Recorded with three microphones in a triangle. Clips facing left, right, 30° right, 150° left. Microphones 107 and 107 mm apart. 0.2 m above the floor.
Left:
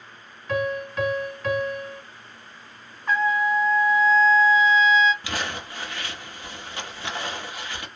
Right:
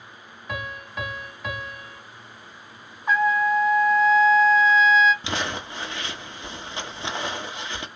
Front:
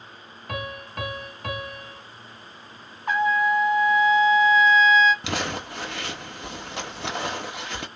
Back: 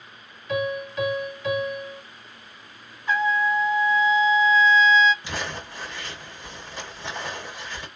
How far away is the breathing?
I don't hear breathing.